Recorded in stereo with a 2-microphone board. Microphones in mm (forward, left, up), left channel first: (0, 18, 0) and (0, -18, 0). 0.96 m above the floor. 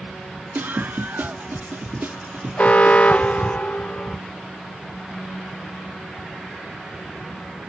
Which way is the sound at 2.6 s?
40° left (ahead or behind).